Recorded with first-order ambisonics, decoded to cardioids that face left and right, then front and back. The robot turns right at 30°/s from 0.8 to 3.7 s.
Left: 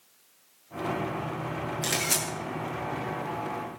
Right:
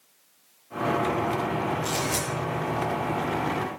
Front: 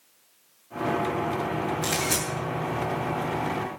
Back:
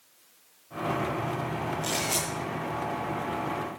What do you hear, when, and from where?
1.8 s a camera shutter: 60° left, 9.5 m; by 2.2 s 70° left, 9.5 m